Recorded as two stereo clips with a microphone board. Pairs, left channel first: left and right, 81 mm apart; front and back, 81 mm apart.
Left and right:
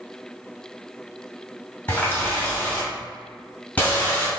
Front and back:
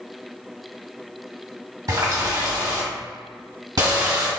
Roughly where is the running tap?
Behind left.